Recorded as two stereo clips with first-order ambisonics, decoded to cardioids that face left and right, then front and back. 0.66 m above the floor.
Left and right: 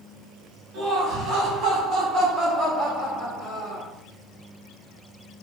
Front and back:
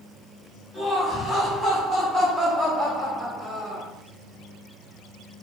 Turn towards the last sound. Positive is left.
turn(degrees=170)